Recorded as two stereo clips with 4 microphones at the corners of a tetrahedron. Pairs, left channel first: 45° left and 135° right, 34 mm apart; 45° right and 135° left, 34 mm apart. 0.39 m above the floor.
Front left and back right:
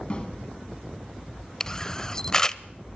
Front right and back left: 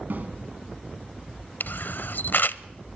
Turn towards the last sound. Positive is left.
turn(degrees=-25)